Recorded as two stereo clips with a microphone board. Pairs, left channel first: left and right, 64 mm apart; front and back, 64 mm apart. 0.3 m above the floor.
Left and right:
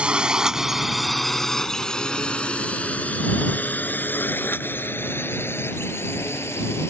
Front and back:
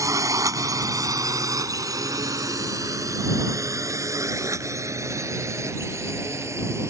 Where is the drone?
160° right; by 6.9 s 135° left.